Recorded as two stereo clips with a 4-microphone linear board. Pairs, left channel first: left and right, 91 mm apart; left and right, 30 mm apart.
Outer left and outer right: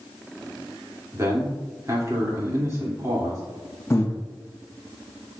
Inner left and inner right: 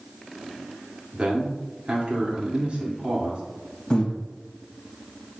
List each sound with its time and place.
1.1 s a man speaking: 35° right (ahead or behind), 2 m
3.9 s breathing: 30° left (ahead or behind), 1.0 m